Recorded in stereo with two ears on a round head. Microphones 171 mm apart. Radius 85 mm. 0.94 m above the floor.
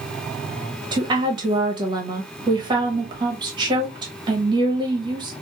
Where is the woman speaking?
25° right (ahead or behind), 0.9 m.